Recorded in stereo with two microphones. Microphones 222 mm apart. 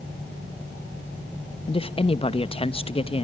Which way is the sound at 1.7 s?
25° left (ahead or behind).